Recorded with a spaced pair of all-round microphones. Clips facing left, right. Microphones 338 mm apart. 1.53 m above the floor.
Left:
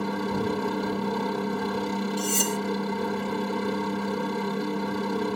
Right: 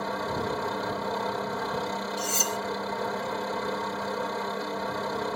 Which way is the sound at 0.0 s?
40° left (ahead or behind).